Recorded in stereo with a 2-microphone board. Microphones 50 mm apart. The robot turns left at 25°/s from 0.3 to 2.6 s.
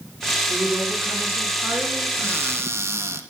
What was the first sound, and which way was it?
A woman speaking, 65° right.